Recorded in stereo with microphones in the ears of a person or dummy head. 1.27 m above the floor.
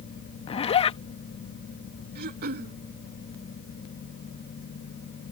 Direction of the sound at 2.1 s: 50° right (ahead or behind).